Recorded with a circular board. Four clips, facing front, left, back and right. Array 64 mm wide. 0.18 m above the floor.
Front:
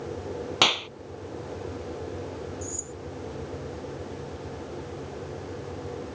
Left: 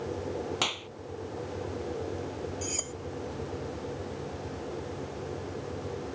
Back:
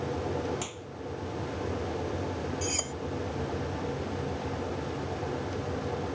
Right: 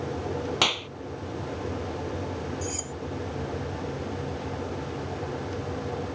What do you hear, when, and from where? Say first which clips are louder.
0.6 s a clap: right 6 dB, front 14 dB; 20° right
2.6 s cutlery clinking: right 3 dB, back 4 dB; 170° left